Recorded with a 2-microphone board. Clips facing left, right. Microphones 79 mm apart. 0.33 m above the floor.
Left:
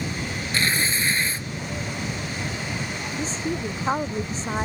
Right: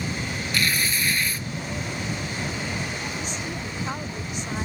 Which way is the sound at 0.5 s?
30° left (ahead or behind).